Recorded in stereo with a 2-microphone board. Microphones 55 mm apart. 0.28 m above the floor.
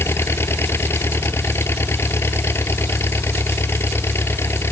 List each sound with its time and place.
0.0 s an engine running: 50° left (ahead or behind)